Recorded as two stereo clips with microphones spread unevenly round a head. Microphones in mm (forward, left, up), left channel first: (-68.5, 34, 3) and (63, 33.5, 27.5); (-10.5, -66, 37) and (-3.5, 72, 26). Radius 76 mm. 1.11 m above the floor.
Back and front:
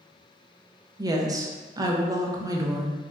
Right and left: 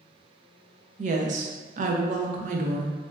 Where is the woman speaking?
70° left, 0.6 m.